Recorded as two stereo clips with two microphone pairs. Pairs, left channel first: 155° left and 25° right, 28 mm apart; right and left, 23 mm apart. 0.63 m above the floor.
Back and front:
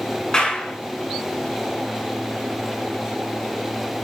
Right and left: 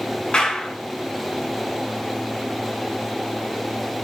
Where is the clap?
140° right, 6.5 m.